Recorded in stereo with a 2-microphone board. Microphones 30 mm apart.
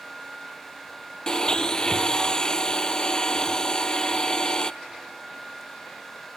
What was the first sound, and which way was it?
A blender, 25° left (ahead or behind).